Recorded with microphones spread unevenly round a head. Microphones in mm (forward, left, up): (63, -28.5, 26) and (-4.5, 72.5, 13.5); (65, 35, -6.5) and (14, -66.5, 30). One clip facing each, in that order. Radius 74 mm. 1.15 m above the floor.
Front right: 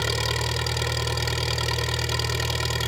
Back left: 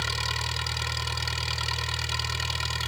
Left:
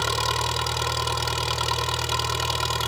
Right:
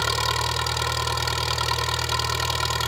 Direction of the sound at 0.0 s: 25° right.